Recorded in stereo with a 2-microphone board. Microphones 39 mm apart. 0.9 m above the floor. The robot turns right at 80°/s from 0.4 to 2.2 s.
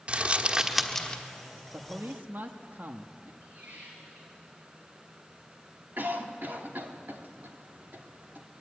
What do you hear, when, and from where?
0.1 s crumpling: 35° right (ahead or behind), 1.3 m; by 1.2 s 30° left (ahead or behind), 1.3 m
1.7 s a man speaking: 105° right, 1.2 m; by 3.3 s 70° right, 1.2 m
3.4 s a squeak: 50° right (ahead or behind), 5.5 m
6.0 s a cough: 65° right (ahead or behind), 2 m